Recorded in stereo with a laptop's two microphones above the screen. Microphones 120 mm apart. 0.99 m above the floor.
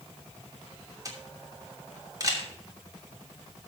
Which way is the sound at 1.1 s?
30° right (ahead or behind).